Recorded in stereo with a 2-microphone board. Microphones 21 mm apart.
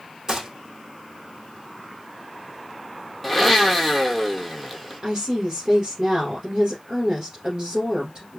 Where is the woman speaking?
35° right (ahead or behind), 1.9 m.